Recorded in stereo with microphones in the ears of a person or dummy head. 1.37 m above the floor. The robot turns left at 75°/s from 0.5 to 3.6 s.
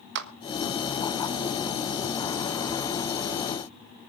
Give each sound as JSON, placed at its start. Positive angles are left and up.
{"t": 0.1, "sound": "a clap", "side_deg": -60, "distance_m": 1.4}